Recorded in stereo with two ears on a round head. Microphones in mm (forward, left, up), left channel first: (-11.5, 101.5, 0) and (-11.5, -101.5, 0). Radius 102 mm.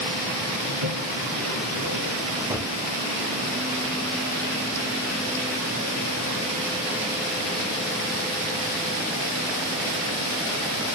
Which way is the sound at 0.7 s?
80° right.